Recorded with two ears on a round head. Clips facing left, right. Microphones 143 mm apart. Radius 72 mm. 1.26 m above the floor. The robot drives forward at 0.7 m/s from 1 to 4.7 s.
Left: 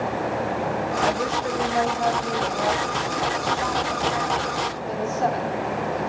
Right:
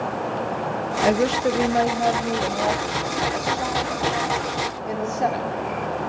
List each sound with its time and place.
1.0 s a woman speaking: 40° right (ahead or behind), 1.6 m; by 5.5 s 15° right (ahead or behind), 4 m